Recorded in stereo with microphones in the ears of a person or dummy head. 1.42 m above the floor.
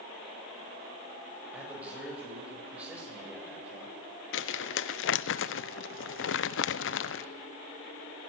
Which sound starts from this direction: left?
Crumpling, at 4.3 s.